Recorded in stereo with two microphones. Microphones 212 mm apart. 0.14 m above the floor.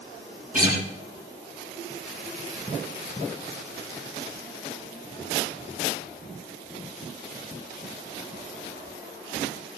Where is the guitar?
40° right (ahead or behind), 5.5 m.